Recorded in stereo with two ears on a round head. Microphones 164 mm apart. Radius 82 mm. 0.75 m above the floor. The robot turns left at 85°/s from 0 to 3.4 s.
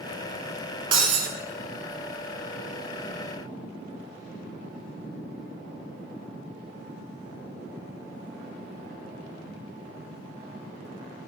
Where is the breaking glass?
30° right, 1.3 m; by 1.3 s 65° right, 1.3 m.